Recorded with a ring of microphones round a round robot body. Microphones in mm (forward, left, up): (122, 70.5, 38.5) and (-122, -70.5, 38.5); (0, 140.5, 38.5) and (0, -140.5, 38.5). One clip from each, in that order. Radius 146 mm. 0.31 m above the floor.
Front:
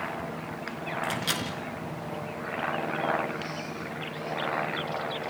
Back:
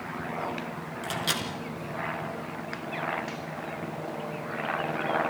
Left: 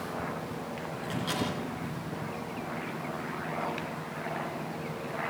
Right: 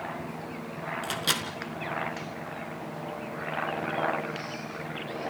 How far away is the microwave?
About 3.5 m.